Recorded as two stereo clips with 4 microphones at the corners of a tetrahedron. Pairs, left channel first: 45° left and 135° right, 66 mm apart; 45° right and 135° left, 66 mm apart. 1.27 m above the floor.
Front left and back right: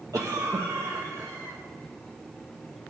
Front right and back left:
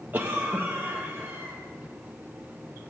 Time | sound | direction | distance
0.1 | a cough | 165° right | 1.2 m